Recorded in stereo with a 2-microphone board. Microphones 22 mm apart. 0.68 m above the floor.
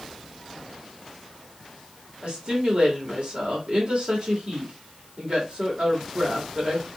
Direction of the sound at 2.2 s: 50° right (ahead or behind).